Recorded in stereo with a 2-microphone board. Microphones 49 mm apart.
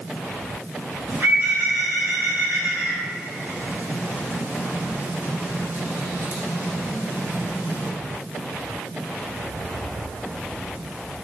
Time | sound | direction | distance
1.1 | a bird | 45° right (ahead or behind) | 3 m